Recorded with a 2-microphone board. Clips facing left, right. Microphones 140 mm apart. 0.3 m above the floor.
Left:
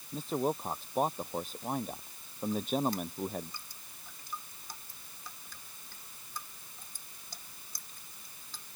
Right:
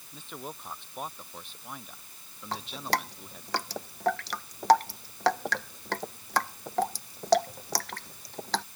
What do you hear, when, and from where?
0.1 s a man speaking: 40° left (ahead or behind); by 3.5 s 50° left (ahead or behind)
2.5 s dripping: 80° right